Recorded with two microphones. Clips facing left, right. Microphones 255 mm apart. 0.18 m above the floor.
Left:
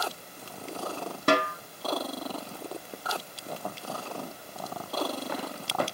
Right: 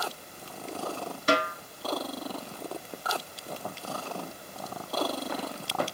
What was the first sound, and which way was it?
A snare drum, 60° left (ahead or behind).